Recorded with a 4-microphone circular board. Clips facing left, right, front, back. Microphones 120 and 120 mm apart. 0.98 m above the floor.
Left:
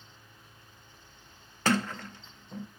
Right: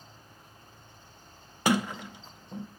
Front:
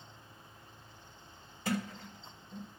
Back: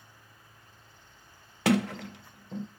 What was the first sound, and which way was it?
A sliding door, 170° right.